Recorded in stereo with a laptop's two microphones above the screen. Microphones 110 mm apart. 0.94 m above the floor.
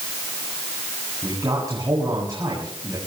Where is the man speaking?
35° right (ahead or behind), 7 m.